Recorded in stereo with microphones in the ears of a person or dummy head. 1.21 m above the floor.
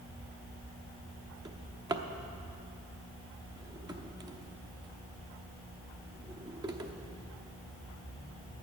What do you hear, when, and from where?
1.4 s a drawer: 25° right (ahead or behind), 0.9 m